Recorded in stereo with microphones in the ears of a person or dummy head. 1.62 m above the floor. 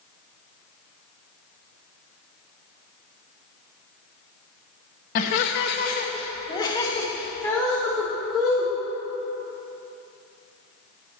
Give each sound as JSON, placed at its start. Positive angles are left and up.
{"t": 5.2, "sound": "laughter", "side_deg": 55, "distance_m": 1.0}